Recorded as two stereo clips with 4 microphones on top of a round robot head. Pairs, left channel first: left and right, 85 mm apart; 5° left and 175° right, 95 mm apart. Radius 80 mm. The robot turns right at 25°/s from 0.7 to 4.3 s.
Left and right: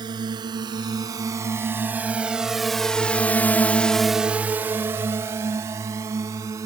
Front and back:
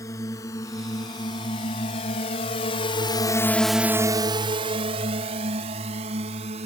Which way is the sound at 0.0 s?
55° right.